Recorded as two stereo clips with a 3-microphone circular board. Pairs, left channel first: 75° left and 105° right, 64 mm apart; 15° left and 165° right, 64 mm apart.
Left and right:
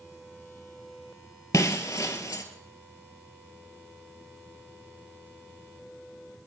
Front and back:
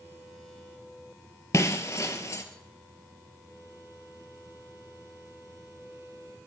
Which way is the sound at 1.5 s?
50° left.